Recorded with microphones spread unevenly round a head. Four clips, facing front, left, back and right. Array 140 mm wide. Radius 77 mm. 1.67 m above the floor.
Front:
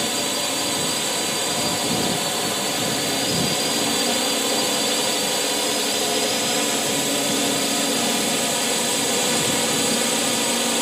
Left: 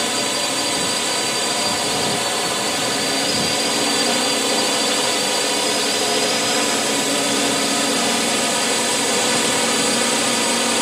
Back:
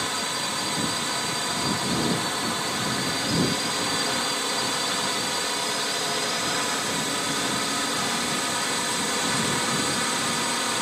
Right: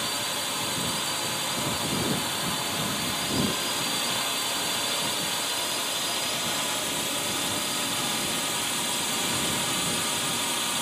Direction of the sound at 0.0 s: 70° left.